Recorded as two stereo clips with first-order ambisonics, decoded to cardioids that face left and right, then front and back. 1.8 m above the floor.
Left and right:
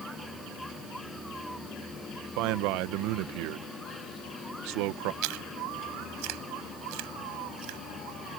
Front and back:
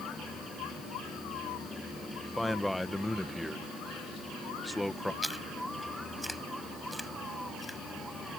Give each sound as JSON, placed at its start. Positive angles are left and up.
{"t": 2.4, "sound": "a man speaking", "azimuth_deg": -85}
{"t": 5.2, "sound": "chewing", "azimuth_deg": -90}